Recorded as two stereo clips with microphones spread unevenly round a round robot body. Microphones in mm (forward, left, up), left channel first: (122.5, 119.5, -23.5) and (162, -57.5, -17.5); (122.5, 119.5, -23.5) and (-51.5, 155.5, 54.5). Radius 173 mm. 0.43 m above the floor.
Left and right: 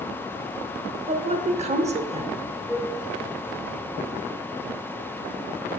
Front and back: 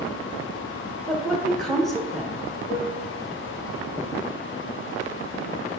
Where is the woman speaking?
60° right, 0.9 m.